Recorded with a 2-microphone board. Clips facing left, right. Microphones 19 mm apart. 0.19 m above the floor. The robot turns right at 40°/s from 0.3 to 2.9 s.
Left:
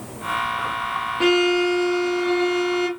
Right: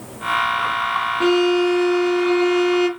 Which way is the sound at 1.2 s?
130° left.